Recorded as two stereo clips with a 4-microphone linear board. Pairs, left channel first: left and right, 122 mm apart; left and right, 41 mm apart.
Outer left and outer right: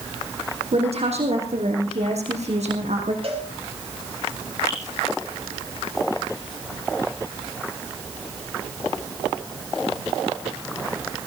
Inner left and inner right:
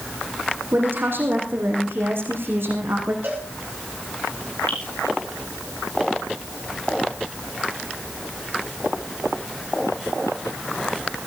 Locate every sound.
0.7 s a woman speaking: 65° right (ahead or behind), 4.5 m; by 3.1 s 80° right, 5 m
3.2 s a cowbell: 60° right (ahead or behind), 5.5 m
4.7 s dripping: 25° left (ahead or behind), 8.5 m